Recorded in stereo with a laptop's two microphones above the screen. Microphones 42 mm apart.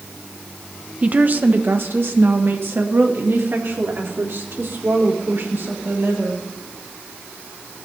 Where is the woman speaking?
30° right (ahead or behind), 0.6 m; by 6.4 s 65° right (ahead or behind), 4 m.